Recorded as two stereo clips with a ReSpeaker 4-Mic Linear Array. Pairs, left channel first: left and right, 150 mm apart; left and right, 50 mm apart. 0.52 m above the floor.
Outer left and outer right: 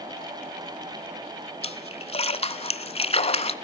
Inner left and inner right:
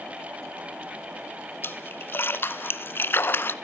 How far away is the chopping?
I don't hear chopping.